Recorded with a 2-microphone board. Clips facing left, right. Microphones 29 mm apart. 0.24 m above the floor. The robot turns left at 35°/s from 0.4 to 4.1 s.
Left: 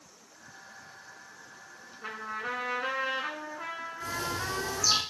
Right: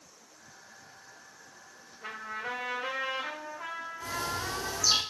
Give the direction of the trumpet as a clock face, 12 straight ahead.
6 o'clock.